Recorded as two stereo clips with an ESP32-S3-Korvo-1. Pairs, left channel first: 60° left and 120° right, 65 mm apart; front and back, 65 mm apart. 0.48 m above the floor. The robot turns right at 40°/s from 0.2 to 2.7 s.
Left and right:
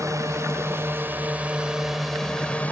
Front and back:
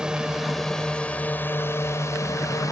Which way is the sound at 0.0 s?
105° right.